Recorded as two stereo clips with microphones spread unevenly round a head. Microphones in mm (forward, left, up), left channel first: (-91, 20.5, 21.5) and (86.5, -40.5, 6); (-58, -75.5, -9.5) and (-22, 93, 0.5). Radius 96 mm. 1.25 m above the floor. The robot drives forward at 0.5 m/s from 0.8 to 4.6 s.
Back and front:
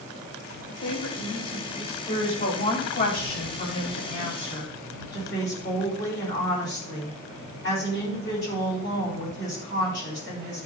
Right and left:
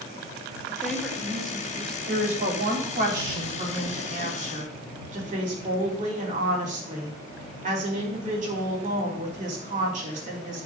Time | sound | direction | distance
0.7 | a woman speaking | 170° left | 2.0 m
2.1 | a woman speaking | 110° left | 4 m